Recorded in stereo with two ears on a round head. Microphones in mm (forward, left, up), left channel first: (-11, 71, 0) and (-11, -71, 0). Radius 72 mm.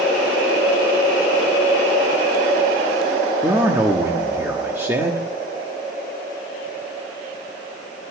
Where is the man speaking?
15° right (ahead or behind), 1.1 m.